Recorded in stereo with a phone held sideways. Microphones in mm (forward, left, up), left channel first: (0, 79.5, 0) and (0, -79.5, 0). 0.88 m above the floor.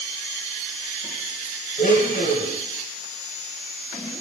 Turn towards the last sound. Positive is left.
turn(degrees=75)  # may be behind; listen again after turning